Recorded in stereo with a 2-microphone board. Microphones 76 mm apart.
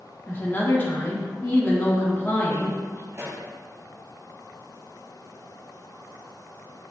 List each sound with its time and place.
0.3 s a woman speaking: 25° left (ahead or behind), 3 m
3.1 s a pop: 40° right (ahead or behind), 1.8 m